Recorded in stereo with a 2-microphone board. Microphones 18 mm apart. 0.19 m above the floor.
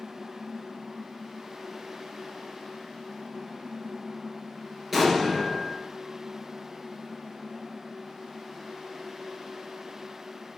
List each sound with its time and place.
4.9 s an explosion: 15° right (ahead or behind), 2.5 m